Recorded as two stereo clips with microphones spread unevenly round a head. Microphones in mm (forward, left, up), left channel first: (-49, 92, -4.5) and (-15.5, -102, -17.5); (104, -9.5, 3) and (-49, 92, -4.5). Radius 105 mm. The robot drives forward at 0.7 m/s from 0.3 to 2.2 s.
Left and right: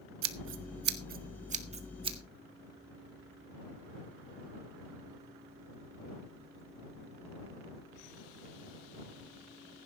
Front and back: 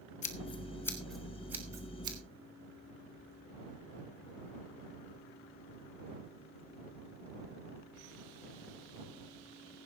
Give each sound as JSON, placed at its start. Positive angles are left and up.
{"t": 0.2, "sound": "scissors", "azimuth_deg": -90, "distance_m": 1.0}